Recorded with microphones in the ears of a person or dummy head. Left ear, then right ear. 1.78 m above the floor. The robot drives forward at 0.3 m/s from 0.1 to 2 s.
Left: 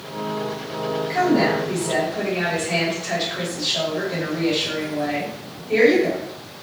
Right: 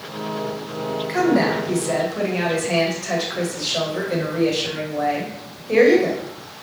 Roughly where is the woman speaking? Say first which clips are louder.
Even; right.